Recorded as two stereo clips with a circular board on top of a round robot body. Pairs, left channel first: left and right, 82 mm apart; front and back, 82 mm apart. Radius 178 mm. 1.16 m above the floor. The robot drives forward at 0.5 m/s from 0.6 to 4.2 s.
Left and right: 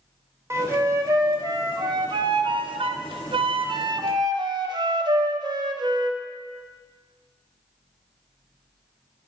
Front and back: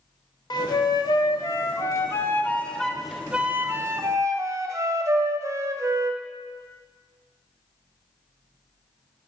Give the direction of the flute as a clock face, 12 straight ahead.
1 o'clock.